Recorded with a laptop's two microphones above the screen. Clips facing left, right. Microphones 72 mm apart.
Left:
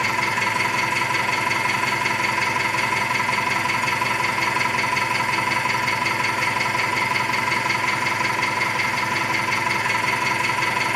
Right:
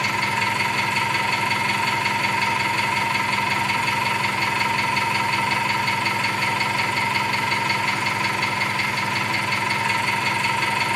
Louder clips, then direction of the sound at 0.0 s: Left 1 dB; 10° left (ahead or behind).